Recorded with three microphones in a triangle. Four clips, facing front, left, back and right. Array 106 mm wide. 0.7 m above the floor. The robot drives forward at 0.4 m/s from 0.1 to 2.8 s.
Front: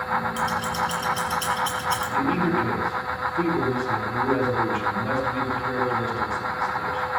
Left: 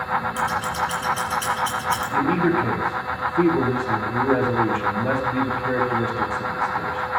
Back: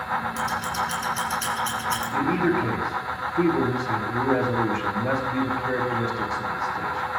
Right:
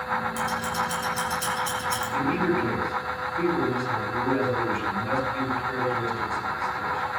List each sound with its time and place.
0.4 s scissors: 110° left, 6 m; by 2.1 s 115° left, 6.5 m
2.1 s a man speaking: 110° left, 4.5 m; by 7.1 s 115° left, 4.5 m